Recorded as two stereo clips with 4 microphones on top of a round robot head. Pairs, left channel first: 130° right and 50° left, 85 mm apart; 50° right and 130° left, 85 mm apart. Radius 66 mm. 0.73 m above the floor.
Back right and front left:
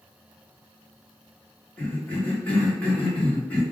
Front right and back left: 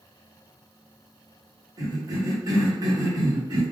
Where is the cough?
160° left, 1.6 m.